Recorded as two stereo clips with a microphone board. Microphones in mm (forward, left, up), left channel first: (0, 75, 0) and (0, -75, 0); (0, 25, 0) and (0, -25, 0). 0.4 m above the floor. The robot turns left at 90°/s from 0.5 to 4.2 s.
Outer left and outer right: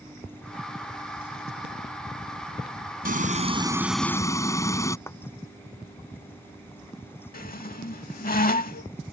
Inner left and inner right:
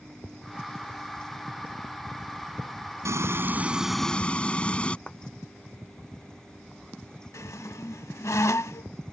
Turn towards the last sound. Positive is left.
turn(degrees=80)